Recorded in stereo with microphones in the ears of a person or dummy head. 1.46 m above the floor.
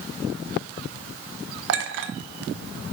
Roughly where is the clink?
Right.